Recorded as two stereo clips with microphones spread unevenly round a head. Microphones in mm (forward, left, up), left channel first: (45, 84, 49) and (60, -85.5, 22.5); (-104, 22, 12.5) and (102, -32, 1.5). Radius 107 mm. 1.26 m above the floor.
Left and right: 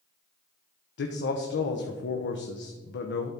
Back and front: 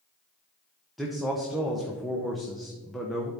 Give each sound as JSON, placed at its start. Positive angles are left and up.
{"t": 1.0, "sound": "a man speaking", "azimuth_deg": 75, "distance_m": 0.8}